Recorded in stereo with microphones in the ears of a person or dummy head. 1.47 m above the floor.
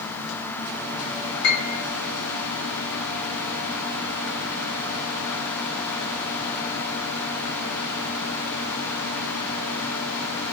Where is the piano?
65° left (ahead or behind), 5 m.